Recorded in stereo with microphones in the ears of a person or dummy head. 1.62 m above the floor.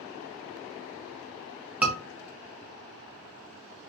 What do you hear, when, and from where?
1.8 s a scream: 10° right (ahead or behind), 1.7 m